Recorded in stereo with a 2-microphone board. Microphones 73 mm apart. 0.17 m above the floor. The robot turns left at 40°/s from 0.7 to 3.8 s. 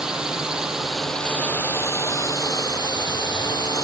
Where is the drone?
170° right; by 3.8 s 65° left.